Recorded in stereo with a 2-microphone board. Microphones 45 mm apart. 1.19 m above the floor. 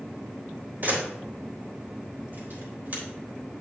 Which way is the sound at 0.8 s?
45° right (ahead or behind).